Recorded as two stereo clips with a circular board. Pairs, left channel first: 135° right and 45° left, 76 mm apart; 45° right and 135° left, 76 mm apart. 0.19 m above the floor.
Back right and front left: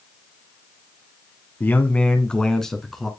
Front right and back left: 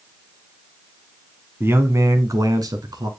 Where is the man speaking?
175° left, 1.6 m; by 3.1 s 135° left, 2.5 m.